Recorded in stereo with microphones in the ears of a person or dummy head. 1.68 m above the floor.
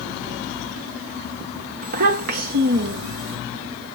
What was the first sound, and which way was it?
A child speaking, 50° right (ahead or behind).